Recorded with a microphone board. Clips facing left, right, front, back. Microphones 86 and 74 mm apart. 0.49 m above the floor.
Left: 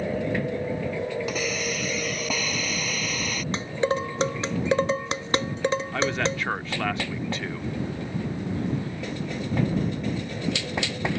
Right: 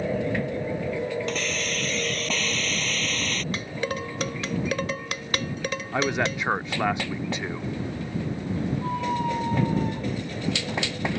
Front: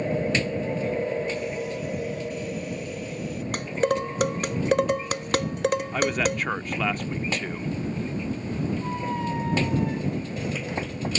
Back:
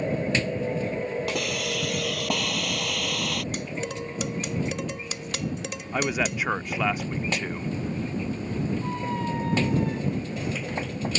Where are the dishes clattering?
30° left.